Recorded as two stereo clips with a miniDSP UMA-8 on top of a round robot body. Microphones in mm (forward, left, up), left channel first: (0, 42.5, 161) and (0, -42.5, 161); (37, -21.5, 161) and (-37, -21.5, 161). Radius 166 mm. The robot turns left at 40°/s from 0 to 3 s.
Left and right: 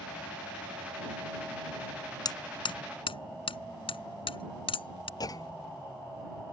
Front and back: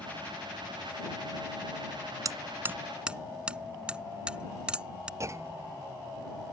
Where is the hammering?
130° left; by 5.1 s 100° left.